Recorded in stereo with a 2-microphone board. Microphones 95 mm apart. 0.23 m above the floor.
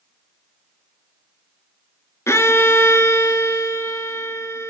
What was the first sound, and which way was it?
A violin, 30° left (ahead or behind).